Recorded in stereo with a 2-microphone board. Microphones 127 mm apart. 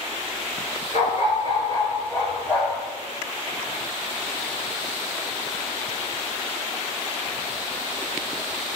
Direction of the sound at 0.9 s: 70° left (ahead or behind).